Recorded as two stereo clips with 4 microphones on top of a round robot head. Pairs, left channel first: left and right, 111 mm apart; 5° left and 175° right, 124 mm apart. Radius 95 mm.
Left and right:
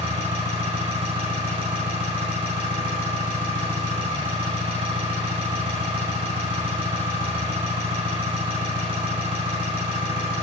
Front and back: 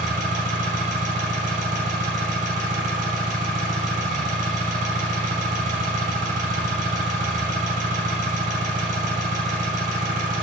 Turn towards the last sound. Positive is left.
turn(degrees=-140)